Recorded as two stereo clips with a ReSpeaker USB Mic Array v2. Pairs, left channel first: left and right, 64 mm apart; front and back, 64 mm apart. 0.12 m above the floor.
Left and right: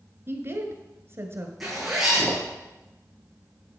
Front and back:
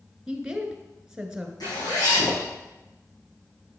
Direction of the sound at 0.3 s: 105° right.